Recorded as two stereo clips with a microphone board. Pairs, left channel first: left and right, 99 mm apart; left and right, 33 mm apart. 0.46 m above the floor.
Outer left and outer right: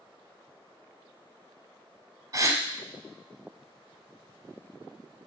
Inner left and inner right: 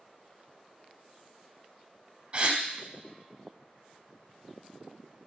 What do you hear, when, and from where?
2.3 s a gasp: 35° right (ahead or behind), 0.6 m